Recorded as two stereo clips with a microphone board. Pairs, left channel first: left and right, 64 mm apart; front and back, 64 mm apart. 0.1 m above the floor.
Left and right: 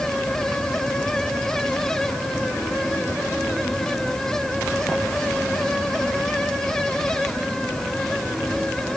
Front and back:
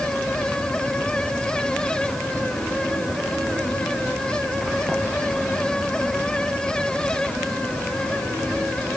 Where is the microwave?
I don't hear a microwave.